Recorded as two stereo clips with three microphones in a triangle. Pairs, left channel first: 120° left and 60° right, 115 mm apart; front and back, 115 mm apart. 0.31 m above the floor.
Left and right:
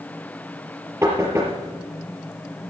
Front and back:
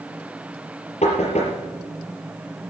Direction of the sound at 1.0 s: 5° left.